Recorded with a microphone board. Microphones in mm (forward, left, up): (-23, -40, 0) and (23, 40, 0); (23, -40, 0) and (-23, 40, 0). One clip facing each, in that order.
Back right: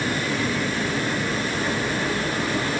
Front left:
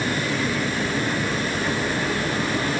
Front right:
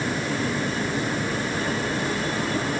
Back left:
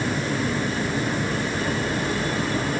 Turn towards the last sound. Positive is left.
No sound to turn to.